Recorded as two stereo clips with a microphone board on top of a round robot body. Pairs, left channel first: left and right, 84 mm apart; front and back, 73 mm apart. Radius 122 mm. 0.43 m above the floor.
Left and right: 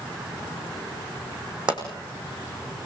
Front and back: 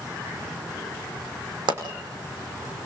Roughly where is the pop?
Behind.